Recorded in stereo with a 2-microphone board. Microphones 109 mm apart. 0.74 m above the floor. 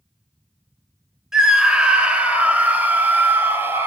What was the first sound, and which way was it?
A scream, 5° right (ahead or behind).